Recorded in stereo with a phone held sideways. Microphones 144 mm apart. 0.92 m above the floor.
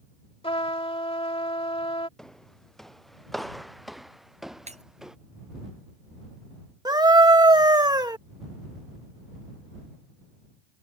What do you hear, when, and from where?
0.4 s a trumpet: 40° left (ahead or behind)
2.2 s footsteps: 5° left (ahead or behind); by 5.2 s 5° right (ahead or behind)
4.7 s breaking glass: 50° right (ahead or behind)
6.8 s a scream: 30° right (ahead or behind)